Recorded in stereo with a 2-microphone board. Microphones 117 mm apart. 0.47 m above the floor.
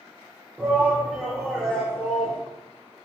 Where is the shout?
15° right (ahead or behind), 1.8 m; by 2.4 s 20° left (ahead or behind), 1.7 m.